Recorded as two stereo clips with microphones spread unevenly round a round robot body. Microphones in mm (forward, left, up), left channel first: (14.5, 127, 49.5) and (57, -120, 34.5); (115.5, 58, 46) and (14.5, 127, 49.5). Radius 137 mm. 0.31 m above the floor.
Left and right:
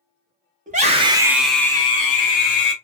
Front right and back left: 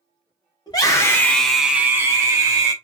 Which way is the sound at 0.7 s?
60° right.